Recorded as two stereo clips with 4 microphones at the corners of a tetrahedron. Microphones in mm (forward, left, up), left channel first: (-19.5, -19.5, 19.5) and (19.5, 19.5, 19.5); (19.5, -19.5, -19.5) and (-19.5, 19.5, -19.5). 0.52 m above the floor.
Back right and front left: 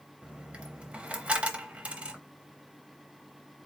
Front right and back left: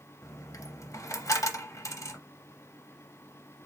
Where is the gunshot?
No gunshot in this recording.